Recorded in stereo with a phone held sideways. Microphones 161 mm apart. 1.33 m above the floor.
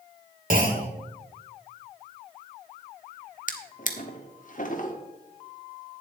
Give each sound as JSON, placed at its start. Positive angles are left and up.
{"t": 0.5, "sound": "a clunk", "side_deg": -60, "distance_m": 2.0}
{"t": 3.5, "sound": "a drawer", "side_deg": 55, "distance_m": 1.2}